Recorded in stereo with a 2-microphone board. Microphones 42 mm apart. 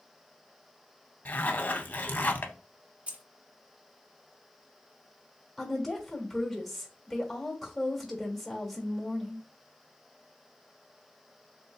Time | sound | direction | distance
1.2 | a zipper | 45° left (ahead or behind) | 0.6 m
3.1 | keys jangling | 35° right (ahead or behind) | 0.6 m
5.6 | a woman speaking | 5° left (ahead or behind) | 1.1 m